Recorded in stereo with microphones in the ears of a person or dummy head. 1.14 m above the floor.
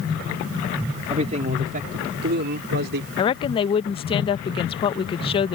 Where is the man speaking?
30° right (ahead or behind); by 3.1 s 55° right (ahead or behind).